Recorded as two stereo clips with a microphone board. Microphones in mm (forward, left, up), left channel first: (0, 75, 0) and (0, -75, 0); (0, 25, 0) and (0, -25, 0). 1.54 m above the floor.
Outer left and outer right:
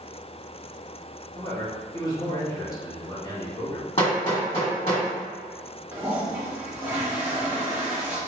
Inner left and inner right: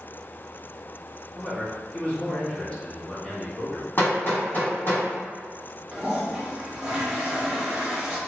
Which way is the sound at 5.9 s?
15° right (ahead or behind).